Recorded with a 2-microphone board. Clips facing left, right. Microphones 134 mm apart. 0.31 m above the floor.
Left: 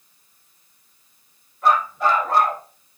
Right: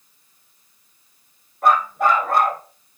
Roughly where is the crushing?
I don't hear crushing.